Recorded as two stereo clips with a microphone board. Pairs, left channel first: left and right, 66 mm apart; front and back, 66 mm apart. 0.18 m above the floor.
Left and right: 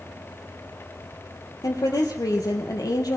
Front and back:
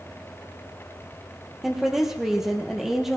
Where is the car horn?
No car horn in this recording.